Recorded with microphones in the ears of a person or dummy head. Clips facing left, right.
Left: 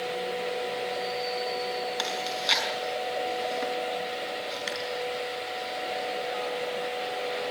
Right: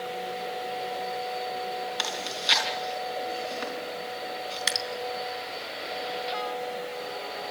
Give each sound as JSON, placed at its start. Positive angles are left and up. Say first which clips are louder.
{"t": 2.0, "sound": "chewing", "louder": "left 3 dB", "side_deg": 5, "distance_m": 5.0}
{"t": 4.7, "sound": "dripping", "louder": "left 1 dB", "side_deg": -65, "distance_m": 2.5}